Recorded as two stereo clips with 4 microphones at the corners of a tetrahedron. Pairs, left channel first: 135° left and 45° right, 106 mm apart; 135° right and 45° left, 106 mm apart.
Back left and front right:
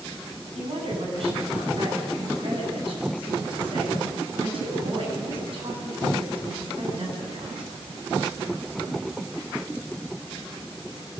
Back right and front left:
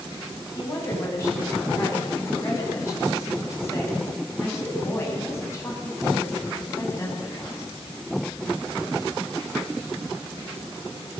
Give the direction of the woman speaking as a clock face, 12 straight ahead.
2 o'clock.